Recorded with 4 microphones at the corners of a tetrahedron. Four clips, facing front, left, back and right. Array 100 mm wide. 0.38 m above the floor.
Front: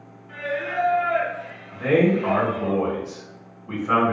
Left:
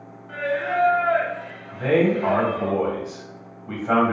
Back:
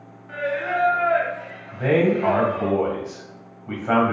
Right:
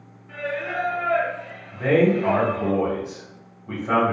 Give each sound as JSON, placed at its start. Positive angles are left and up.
{"t": 0.3, "sound": "singing", "azimuth_deg": 150, "distance_m": 0.8}
{"t": 1.7, "sound": "a man speaking", "azimuth_deg": 165, "distance_m": 1.7}